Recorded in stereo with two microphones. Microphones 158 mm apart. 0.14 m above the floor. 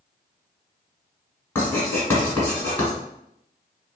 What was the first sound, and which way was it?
Writing, 15° left (ahead or behind).